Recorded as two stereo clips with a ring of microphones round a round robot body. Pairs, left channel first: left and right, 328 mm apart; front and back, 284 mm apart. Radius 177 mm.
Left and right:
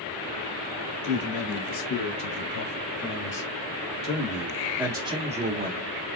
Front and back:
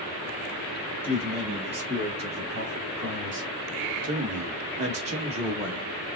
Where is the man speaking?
110° left, 2.5 m; by 5.9 s 115° right, 1.4 m.